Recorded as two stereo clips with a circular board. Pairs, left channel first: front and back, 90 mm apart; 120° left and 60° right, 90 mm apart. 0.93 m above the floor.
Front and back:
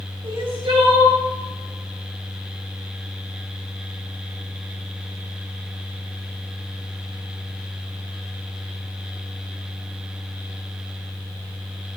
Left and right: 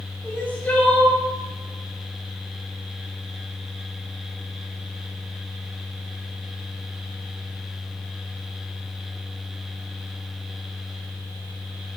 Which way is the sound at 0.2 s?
170° right.